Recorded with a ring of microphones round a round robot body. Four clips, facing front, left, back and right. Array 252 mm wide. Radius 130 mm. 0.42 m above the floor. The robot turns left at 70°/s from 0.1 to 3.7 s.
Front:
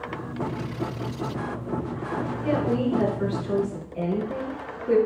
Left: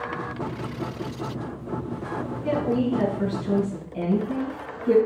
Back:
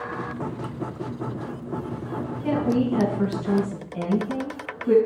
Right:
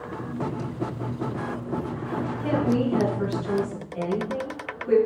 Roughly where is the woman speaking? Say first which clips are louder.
Even, back 2 dB; behind right.